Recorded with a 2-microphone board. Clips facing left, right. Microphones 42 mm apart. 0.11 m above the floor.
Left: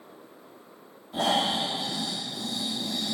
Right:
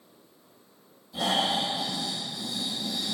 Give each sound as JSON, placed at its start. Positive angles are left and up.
{"t": 1.1, "sound": "snoring", "side_deg": 50, "distance_m": 4.5}